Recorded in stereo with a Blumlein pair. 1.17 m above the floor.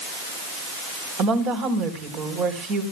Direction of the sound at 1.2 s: 35° right.